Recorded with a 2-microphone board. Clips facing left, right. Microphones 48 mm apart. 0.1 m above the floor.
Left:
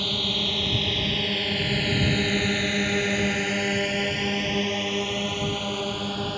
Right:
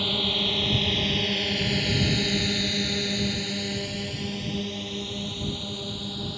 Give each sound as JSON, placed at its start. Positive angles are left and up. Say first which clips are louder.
{"t": 0.0, "sound": "a drone", "louder": "right 1 dB", "side_deg": -5}